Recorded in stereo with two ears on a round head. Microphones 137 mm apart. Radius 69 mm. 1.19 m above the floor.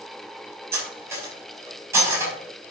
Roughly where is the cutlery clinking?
Centre.